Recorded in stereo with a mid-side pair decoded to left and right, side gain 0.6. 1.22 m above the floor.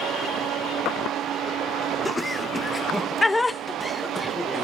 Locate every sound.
2.0 s laughter: 10° left, 1.1 m